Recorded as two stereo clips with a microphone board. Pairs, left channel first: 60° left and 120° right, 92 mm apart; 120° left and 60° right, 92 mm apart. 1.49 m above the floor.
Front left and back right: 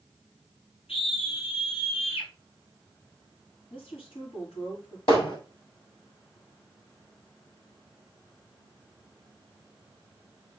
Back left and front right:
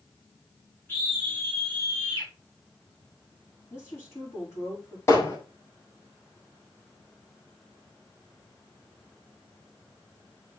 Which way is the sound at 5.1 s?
60° left.